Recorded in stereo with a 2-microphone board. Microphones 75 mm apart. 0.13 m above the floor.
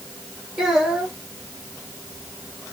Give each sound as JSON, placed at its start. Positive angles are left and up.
{"t": 0.6, "sound": "a child speaking", "side_deg": -10, "distance_m": 3.0}